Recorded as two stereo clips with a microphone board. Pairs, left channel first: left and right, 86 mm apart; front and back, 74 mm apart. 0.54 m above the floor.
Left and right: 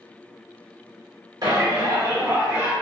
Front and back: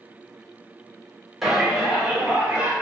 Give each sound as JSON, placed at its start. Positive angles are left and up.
{"t": 1.4, "sound": "a shout", "azimuth_deg": -95, "distance_m": 1.6}